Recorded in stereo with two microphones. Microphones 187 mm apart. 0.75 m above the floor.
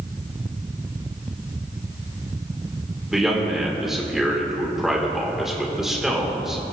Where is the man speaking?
Centre (ahead or behind), 2.5 m.